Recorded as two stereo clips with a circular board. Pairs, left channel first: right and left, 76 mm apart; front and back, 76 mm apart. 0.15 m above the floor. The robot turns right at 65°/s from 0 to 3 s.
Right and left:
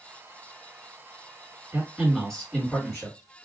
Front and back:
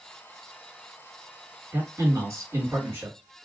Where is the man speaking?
145° left, 2.0 m; by 3.2 s 130° right, 2.0 m.